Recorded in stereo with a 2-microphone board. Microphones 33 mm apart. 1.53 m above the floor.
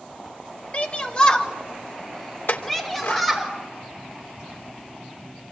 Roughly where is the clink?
Left.